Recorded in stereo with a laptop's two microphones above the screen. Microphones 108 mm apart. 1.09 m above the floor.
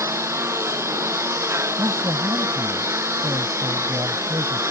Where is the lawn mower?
25° right (ahead or behind).